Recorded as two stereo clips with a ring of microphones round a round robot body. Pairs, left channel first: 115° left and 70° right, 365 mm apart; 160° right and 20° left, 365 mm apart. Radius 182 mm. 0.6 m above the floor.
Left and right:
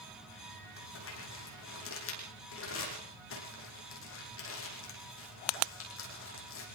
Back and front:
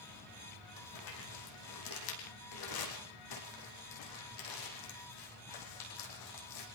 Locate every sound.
0.8 s crumpling: 170° left, 8 m